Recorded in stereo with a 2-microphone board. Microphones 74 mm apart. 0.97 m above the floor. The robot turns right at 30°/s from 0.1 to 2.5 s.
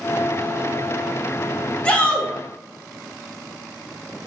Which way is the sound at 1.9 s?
15° left (ahead or behind).